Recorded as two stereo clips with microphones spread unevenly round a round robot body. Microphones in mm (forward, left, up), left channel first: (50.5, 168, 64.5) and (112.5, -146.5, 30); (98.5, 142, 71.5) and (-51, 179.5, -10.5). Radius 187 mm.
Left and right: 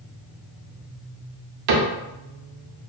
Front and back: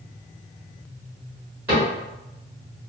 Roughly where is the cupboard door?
Right.